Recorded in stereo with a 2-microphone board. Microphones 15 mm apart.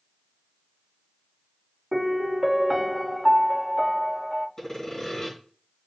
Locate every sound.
1.9 s a piano: 15° right (ahead or behind), 0.6 m
4.6 s sawing: 30° left (ahead or behind), 3.5 m